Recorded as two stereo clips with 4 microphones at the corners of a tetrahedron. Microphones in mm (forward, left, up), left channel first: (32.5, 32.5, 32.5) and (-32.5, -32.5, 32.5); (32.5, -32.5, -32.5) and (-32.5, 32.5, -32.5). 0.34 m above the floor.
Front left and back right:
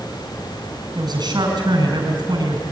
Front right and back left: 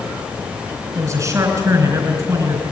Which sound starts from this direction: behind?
A man speaking, at 0.9 s.